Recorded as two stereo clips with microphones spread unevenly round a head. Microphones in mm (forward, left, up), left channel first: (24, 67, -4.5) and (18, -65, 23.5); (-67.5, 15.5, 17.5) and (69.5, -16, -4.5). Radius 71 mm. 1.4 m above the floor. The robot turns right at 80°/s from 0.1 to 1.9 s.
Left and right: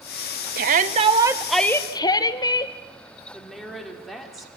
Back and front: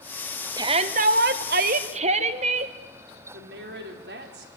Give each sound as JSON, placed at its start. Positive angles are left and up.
{"t": 0.6, "sound": "a shout", "azimuth_deg": -80, "distance_m": 1.3}
{"t": 3.3, "sound": "a woman speaking", "azimuth_deg": -5, "distance_m": 3.5}